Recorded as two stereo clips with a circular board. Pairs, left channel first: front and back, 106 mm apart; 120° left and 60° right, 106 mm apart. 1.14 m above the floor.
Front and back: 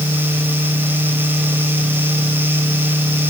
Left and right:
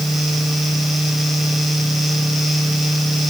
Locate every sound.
Only background noise.